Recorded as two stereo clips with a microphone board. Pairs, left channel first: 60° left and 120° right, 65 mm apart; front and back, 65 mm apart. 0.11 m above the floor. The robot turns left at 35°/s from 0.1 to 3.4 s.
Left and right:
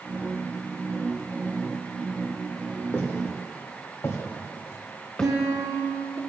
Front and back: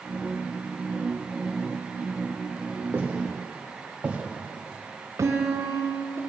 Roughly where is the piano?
Behind right.